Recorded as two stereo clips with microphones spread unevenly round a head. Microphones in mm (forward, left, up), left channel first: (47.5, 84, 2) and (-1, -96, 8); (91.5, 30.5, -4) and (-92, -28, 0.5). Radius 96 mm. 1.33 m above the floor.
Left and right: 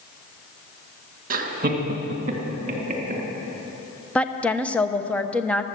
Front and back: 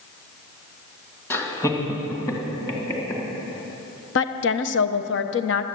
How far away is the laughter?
About 2.0 m.